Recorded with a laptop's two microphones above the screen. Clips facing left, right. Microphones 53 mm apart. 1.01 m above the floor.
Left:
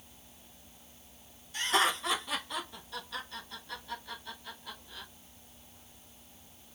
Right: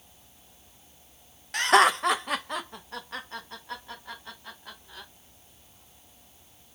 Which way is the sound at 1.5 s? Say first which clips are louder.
Right 9 dB; 75° right (ahead or behind).